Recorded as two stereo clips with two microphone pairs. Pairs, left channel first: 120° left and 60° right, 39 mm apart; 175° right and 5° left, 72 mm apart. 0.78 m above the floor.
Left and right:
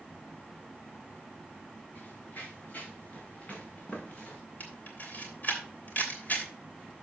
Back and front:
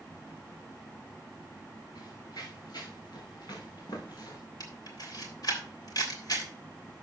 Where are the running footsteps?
165° left, 5.5 m; by 4.4 s 175° left, 4 m.